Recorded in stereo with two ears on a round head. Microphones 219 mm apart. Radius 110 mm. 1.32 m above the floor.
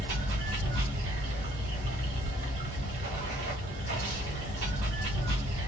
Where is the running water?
50° right (ahead or behind), 1.4 m.